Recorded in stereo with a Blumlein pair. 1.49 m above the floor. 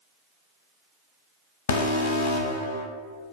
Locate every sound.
1.7 s an alarm: 60° left, 0.7 m